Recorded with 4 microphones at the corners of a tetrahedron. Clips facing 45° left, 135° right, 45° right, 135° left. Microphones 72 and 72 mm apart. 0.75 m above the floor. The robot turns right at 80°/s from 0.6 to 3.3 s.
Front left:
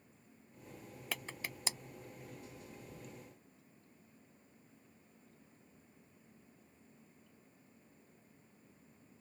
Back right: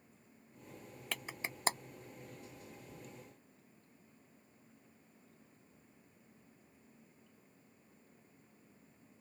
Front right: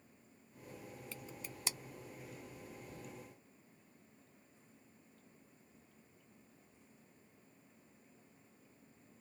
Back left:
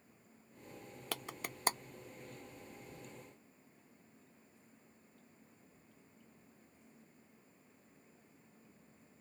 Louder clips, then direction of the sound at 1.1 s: Back right 1 dB, back left 6 dB; 130° left.